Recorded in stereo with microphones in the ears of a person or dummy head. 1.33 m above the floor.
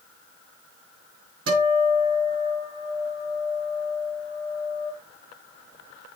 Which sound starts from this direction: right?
A guitar, at 1.5 s.